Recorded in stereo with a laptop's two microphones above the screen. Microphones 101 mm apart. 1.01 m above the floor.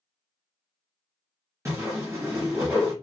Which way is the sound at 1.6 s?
30° right (ahead or behind).